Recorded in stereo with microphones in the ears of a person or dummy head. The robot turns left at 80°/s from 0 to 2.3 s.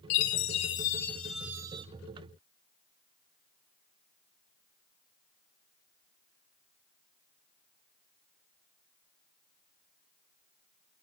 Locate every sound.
0.1 s a chime: 95° left, 0.7 m; by 1.9 s 45° right, 0.7 m